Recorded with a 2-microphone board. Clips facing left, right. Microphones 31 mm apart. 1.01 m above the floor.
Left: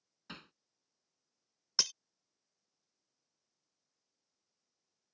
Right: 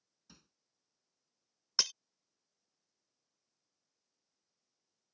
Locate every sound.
0.3 s hammering: 65° left (ahead or behind)
1.8 s breaking glass: 10° right (ahead or behind)